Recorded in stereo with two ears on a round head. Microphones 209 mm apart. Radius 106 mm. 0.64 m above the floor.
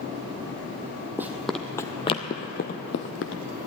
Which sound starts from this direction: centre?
Running footsteps, at 1.2 s.